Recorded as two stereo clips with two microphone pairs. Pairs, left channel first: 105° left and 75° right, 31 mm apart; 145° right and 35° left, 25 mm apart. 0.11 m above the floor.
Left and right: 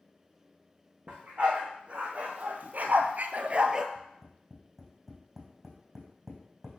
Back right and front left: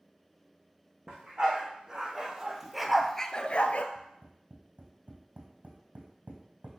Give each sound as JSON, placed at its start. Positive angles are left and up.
{"t": 1.1, "sound": "a dog barking", "azimuth_deg": -20, "distance_m": 2.5}
{"t": 4.0, "sound": "tapping", "azimuth_deg": 10, "distance_m": 3.5}